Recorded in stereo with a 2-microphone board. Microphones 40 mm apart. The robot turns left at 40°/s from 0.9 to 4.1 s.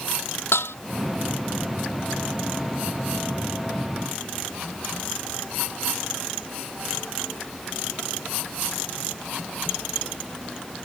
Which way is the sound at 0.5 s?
80° left.